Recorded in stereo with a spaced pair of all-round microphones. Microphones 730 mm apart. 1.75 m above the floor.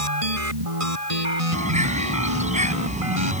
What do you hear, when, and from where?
0.0 s a machine running: 50° right (ahead or behind)
1.5 s a bird: 10° right (ahead or behind)